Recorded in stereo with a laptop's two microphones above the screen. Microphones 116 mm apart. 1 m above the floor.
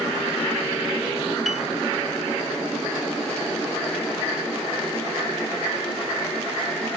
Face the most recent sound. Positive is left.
turn(degrees=0)  # may be behind; listen again after turning